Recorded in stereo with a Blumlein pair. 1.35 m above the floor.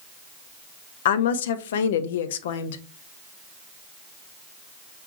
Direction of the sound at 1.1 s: 60° left.